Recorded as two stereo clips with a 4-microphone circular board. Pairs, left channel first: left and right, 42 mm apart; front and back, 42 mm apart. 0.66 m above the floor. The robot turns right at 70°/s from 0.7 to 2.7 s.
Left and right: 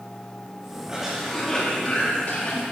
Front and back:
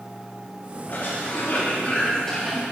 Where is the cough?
25° right, 1.1 m; by 2.6 s 95° left, 1.1 m.